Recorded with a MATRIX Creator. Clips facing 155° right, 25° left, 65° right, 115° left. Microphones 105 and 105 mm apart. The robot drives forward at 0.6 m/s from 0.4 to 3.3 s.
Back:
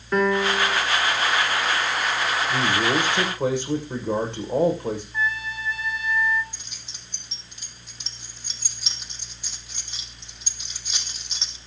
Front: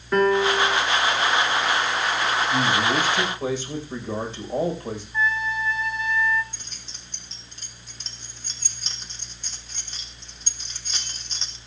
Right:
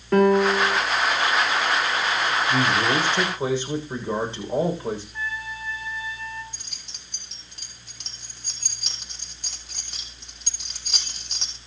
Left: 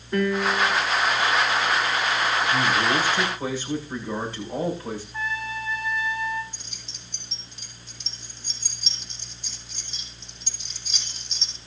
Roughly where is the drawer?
No drawer in this recording.